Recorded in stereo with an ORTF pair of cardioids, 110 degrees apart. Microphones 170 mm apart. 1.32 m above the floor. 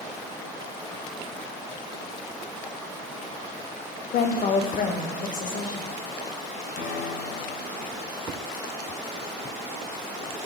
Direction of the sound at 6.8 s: 70° left.